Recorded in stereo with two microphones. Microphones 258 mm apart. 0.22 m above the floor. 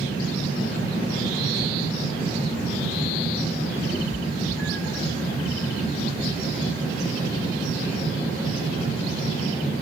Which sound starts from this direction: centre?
A cat meowing, at 3.9 s.